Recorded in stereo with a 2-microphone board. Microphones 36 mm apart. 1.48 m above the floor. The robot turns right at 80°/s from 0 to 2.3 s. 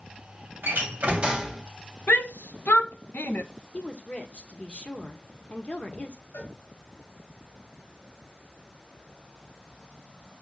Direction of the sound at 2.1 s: 60° left (ahead or behind).